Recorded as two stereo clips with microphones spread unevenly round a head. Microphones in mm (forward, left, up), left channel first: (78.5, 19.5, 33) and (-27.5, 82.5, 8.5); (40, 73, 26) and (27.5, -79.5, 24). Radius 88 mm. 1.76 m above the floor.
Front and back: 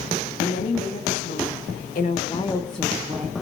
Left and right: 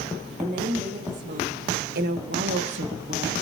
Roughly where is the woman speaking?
Ahead right.